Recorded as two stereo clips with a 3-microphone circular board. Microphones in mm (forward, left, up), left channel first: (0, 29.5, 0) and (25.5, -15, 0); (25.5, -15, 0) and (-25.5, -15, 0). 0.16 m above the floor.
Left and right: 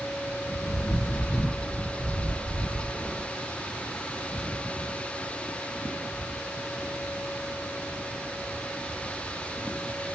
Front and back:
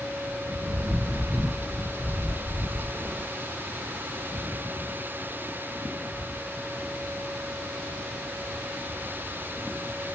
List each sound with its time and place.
0.7 s a bird: 175° left, 1.2 m